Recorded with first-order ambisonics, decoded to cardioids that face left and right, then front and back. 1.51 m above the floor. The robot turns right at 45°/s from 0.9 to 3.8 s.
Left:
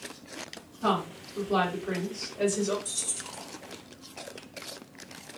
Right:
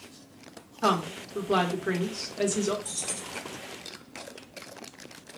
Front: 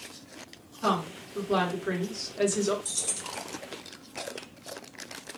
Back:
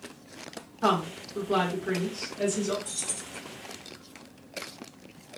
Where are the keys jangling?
10° right, 0.9 m; by 3.4 s 15° left, 0.9 m.